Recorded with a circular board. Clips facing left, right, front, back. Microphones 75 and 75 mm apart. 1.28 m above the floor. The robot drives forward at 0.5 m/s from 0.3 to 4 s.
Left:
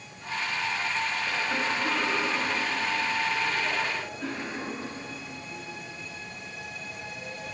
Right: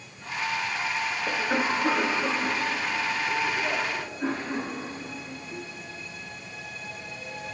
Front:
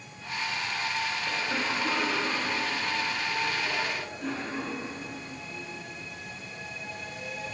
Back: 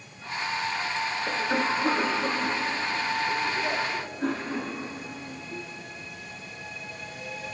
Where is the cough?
135° right, 2.5 m; by 5.6 s 150° right, 3.5 m.